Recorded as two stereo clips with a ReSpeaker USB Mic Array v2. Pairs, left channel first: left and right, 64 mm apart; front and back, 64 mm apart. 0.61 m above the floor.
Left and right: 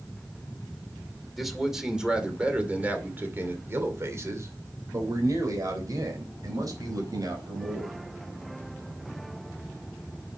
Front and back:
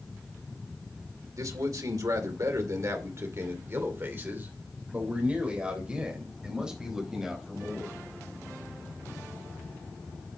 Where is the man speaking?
Straight behind, 2.5 m; by 8.0 s 95° right, 4.5 m.